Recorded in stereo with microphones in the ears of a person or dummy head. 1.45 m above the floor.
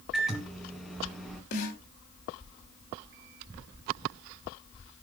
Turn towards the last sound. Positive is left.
turn(degrees=55)  # may be behind; listen again after turning